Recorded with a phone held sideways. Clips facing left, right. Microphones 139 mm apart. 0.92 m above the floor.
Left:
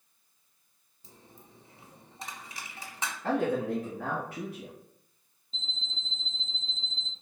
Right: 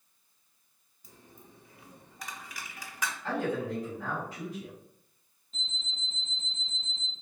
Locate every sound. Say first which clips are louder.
1.0 s a dropped coin: even; 30° left (ahead or behind), 0.8 m
3.2 s a man speaking: left 4 dB; 60° left (ahead or behind), 1.6 m
5.5 s an alarm clock: left 1 dB; 30° left (ahead or behind), 0.8 m